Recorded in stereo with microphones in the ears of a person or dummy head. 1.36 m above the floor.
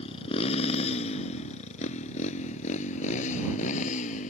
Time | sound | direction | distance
0.0 | a motorcycle | 35° left (ahead or behind) | ?